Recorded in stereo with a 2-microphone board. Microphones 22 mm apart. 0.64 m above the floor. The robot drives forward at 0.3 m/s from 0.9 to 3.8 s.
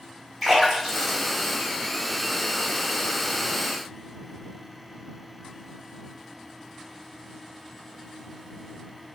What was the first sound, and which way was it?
A splash, centre (ahead or behind).